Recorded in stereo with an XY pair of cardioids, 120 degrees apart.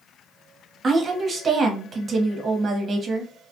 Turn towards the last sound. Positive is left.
turn(degrees=-35)